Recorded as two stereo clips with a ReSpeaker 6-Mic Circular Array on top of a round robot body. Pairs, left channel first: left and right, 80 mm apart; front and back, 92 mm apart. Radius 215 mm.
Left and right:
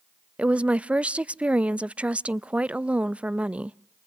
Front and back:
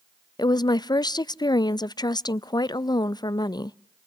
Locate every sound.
0.4 s a woman speaking: 20° right, 0.6 m